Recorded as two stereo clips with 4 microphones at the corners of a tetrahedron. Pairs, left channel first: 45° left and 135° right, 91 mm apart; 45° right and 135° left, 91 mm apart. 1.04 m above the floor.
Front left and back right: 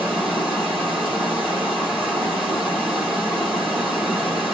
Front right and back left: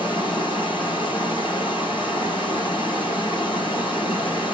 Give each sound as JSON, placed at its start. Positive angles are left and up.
{"t": 0.0, "sound": "running water", "azimuth_deg": -60, "distance_m": 1.7}